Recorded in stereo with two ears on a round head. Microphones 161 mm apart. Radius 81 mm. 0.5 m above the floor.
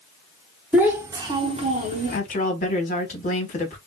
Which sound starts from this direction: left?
A woman speaking, at 2.1 s.